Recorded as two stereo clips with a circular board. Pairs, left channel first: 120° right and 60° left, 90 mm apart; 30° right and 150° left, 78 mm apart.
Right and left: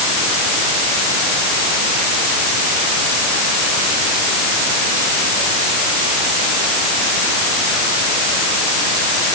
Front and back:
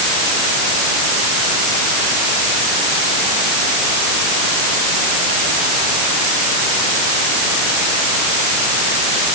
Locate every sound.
Only background noise.